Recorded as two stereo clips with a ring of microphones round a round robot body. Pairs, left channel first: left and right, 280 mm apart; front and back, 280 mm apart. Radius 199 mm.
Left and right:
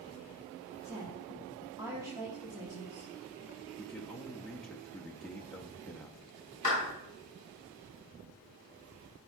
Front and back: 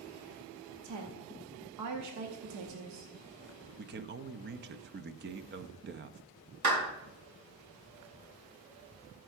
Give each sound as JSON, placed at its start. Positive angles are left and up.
{"t": 0.8, "sound": "a woman speaking", "azimuth_deg": -170, "distance_m": 0.9}
{"t": 3.8, "sound": "a man speaking", "azimuth_deg": 175, "distance_m": 0.5}
{"t": 6.6, "sound": "a clap", "azimuth_deg": 160, "distance_m": 5.0}